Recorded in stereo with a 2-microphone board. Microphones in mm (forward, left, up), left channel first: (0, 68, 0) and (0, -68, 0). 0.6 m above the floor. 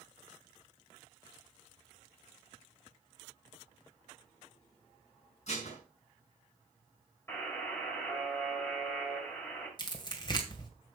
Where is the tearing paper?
30° left (ahead or behind), 2 m.